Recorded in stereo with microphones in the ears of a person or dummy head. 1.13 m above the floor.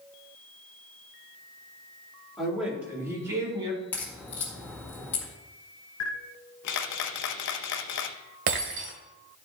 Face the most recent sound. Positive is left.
turn(degrees=-60)  # may be behind; listen again after turning